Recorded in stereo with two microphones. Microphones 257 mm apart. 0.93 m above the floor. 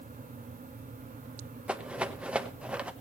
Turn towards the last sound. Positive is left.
turn(degrees=-5)  # may be behind; listen again after turning